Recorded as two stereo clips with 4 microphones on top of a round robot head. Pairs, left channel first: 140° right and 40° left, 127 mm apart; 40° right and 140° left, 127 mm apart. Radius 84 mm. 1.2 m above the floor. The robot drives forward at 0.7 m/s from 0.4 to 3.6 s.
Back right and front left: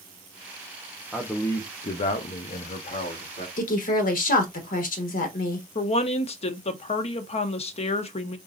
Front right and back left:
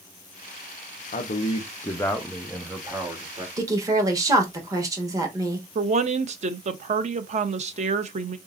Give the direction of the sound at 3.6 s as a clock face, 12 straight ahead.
5 o'clock.